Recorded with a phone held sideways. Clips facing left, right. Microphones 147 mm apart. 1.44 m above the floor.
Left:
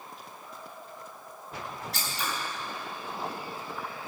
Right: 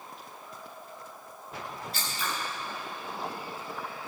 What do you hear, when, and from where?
1.9 s scissors: 80° left, 2.5 m